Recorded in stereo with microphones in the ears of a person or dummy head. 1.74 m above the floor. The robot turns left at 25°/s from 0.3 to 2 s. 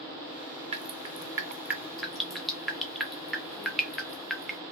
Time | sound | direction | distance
0.7 | dripping | 30° right (ahead or behind) | 0.6 m